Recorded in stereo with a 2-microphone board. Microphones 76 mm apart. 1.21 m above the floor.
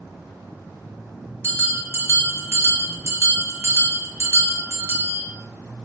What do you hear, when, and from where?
1.4 s a bell: 30° right (ahead or behind), 0.6 m